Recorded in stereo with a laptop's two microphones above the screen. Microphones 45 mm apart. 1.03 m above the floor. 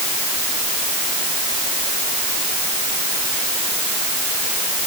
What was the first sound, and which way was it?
Only background noise.